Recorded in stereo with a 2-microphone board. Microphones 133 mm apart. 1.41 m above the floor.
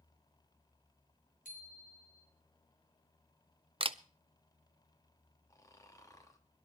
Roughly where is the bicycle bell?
Left.